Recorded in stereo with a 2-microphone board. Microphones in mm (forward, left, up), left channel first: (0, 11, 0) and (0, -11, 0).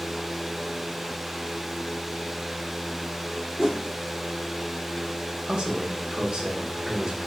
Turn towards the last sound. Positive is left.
turn(degrees=-50)  # may be behind; listen again after turning